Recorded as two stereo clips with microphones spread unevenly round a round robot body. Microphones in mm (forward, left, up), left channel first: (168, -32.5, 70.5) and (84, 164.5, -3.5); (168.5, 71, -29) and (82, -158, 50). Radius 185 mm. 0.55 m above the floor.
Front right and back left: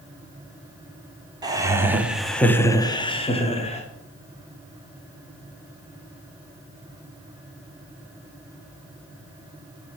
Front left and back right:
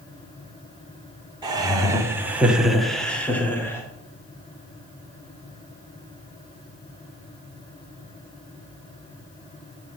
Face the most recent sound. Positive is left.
turn(degrees=5)